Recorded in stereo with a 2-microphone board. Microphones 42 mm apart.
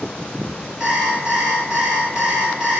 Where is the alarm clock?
10° right (ahead or behind), 2.5 m.